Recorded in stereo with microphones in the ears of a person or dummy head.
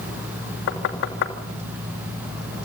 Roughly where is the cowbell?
No cowbell in this recording.